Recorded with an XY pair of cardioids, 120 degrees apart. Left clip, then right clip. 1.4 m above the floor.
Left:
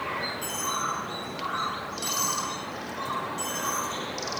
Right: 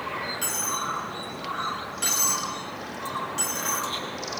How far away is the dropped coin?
About 6.5 m.